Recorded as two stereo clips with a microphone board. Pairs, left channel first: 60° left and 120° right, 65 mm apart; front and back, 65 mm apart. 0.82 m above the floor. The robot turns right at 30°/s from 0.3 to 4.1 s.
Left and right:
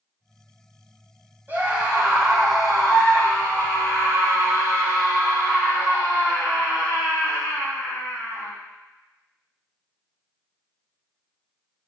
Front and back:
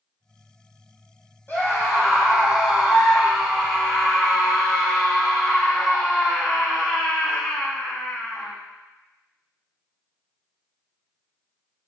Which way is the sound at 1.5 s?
55° right.